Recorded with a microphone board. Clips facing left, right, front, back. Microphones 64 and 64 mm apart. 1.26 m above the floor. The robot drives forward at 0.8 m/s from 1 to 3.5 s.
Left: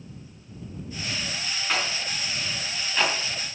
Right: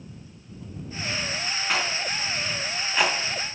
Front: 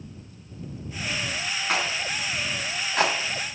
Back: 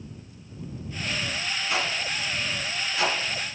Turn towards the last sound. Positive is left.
turn(degrees=-15)